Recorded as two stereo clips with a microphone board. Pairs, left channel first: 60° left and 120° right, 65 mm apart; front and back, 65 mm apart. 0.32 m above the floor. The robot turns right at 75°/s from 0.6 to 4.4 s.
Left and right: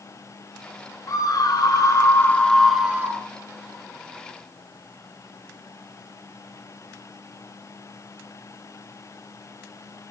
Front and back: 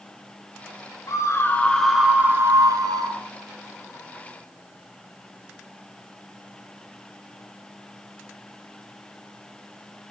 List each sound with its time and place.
1.1 s a scream: 30° left, 3.5 m; by 3.2 s 170° right, 3.5 m